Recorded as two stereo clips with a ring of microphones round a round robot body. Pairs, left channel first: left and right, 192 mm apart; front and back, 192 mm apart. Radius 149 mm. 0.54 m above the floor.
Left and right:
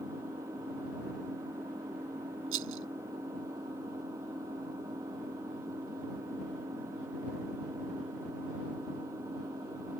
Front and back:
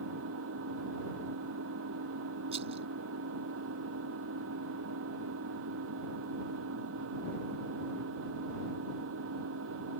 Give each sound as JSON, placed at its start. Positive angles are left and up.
{"t": 0.0, "sound": "an engine running", "azimuth_deg": -170}
{"t": 2.5, "sound": "a rattle", "azimuth_deg": -110}